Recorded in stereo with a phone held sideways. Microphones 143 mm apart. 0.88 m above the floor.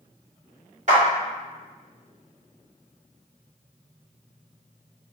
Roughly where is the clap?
Right.